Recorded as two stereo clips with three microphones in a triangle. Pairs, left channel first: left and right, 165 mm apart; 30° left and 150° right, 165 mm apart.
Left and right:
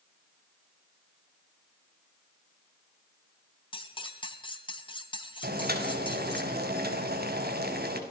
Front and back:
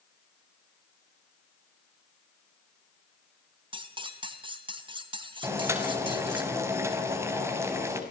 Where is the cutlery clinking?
150° left, 3 m.